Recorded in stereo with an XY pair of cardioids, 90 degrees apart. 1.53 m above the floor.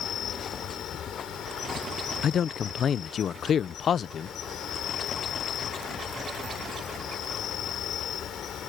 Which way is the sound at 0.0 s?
70° left.